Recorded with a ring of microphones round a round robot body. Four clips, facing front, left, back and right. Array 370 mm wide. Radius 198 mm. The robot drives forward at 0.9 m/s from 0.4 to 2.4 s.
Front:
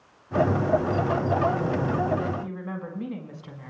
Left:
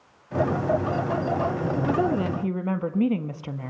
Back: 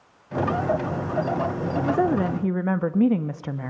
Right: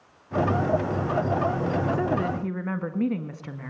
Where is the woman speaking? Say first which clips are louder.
Left 4 dB, back 4 dB; 155° left, 1.2 m; by 3.7 s 165° left, 1.7 m.